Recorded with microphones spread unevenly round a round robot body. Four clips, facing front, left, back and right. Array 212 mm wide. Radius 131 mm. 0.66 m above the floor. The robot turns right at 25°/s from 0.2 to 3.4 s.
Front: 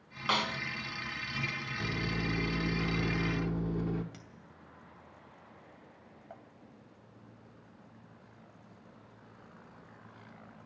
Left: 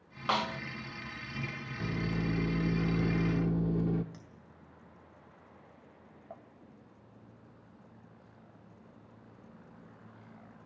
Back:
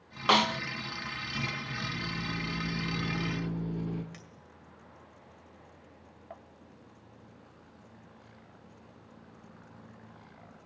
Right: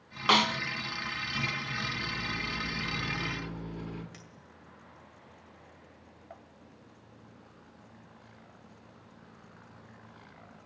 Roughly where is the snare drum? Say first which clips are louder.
Right 5 dB, back 7 dB; behind.